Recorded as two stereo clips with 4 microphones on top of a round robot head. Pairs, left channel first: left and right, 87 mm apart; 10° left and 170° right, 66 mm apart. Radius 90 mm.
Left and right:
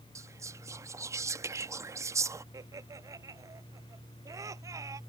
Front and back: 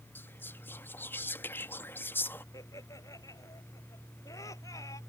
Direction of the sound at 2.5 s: 35° right.